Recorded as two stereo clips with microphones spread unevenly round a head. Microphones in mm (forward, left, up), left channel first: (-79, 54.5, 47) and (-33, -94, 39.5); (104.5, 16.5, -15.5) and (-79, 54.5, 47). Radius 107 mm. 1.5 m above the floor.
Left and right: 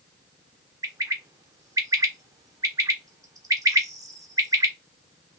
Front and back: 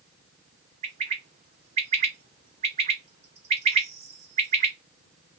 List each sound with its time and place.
0.8 s a bird: 140° right, 0.7 m